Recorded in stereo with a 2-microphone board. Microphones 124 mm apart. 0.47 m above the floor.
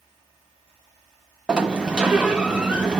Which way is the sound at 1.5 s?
10° right (ahead or behind).